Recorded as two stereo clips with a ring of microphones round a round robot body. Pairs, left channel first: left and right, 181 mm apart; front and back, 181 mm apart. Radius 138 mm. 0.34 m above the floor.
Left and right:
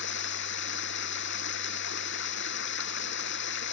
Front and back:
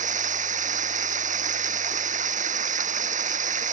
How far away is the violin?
No violin in this recording.